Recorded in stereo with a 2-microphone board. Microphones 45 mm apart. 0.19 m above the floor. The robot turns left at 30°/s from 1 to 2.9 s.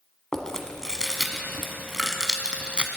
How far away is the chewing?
About 1.0 m.